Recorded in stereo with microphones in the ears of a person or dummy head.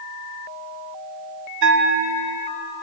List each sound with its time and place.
1.6 s a bell: 65° right (ahead or behind), 0.8 m